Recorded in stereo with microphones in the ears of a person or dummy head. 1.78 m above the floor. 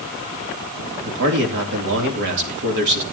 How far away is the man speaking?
About 3 m.